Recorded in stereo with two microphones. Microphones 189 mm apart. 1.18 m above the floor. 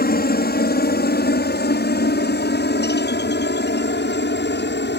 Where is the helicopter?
55° left (ahead or behind); by 5.0 s 70° left (ahead or behind).